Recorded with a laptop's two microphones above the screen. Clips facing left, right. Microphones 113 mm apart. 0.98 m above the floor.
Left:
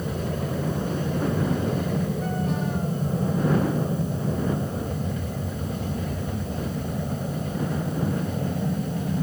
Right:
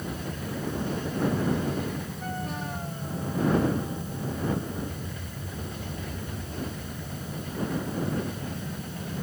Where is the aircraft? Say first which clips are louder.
Left 6 dB; 50° left (ahead or behind); by 9.2 s 45° left (ahead or behind).